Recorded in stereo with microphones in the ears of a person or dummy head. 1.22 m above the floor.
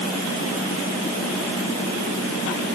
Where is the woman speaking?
I don't hear a woman speaking.